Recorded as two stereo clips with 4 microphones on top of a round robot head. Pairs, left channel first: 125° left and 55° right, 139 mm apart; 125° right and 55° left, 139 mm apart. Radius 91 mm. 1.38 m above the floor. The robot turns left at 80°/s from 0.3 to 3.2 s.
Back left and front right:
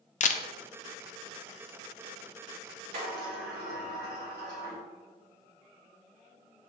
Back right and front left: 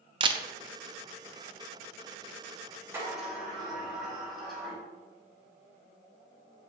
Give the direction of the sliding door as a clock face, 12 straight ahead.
1 o'clock.